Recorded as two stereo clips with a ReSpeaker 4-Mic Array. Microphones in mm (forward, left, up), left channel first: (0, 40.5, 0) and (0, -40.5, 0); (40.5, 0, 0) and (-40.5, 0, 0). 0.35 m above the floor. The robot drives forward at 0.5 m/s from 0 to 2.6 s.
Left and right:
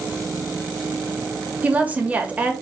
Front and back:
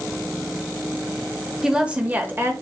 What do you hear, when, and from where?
1.6 s a woman speaking: 105° right, 0.8 m; by 2.5 s 150° right, 1.0 m